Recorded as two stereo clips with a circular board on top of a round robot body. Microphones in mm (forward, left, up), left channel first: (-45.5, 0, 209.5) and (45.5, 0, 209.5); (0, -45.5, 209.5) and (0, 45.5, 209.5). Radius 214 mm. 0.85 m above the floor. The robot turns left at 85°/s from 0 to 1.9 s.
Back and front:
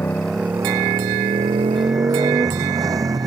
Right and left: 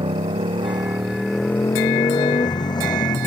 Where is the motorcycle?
115° left; by 3.3 s 50° right.